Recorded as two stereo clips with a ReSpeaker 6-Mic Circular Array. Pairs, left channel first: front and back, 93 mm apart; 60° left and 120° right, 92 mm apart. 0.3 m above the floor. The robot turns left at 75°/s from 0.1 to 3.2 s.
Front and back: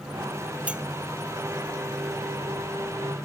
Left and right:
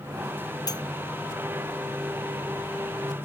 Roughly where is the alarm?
I don't hear an alarm.